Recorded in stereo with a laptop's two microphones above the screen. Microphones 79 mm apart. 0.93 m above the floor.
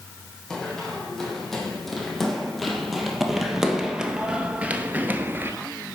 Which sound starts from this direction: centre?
Running footsteps, at 0.5 s.